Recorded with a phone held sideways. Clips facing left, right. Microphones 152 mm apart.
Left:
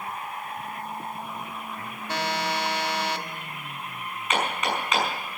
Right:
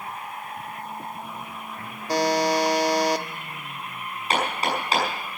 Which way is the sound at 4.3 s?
35° right (ahead or behind).